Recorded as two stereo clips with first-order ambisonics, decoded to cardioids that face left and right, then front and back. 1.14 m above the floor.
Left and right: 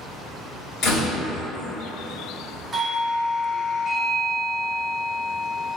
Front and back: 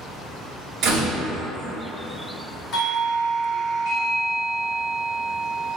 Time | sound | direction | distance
0.8 | a door slam | 135° left | 1.3 m
2.7 | a doorbell | 15° right | 1.0 m